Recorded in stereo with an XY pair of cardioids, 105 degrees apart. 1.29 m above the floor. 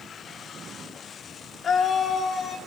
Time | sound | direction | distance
1.6 | a scream | 50° left | 2.5 m